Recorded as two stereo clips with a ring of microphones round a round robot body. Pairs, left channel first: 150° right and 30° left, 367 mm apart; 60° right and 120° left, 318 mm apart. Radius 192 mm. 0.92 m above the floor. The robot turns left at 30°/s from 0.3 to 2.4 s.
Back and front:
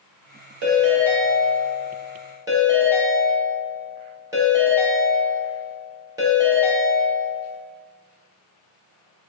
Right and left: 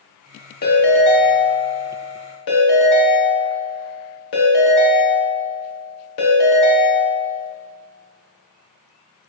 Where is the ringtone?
Straight ahead, 1.3 m; by 7.4 s 50° right, 1.3 m.